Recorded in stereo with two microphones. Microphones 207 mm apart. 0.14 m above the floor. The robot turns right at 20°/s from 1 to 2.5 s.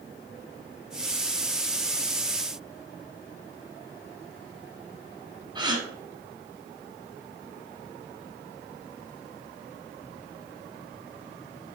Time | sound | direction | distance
5.5 | a gasp | 20° right (ahead or behind) | 0.8 m